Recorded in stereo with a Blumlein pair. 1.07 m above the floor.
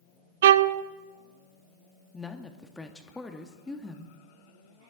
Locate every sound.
0.4 s a violin: 60° right, 0.6 m
2.1 s a woman speaking: 10° left, 1.8 m